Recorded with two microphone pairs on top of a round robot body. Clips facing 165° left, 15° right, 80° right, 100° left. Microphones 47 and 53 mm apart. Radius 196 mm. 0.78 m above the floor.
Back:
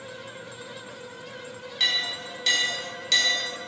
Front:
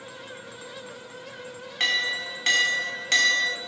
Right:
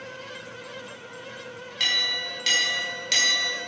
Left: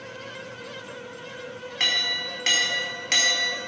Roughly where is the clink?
Ahead left.